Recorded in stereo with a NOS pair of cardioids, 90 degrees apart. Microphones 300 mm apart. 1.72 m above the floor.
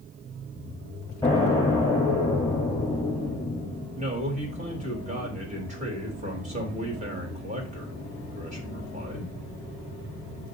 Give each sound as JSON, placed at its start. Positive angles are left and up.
{"t": 1.2, "sound": "an explosion", "azimuth_deg": 10, "distance_m": 5.0}
{"t": 4.0, "sound": "a man speaking", "azimuth_deg": -25, "distance_m": 4.0}